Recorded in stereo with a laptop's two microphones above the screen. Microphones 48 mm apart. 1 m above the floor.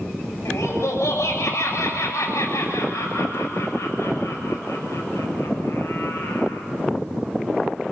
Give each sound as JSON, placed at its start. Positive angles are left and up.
{"t": 0.5, "sound": "laughter", "side_deg": 85, "distance_m": 7.5}